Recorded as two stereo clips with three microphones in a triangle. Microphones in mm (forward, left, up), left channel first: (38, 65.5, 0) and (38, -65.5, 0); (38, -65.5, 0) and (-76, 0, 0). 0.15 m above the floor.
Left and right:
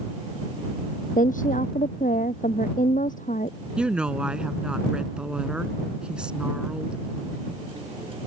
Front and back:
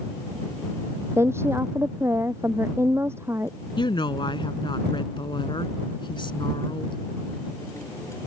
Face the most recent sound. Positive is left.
turn(degrees=-10)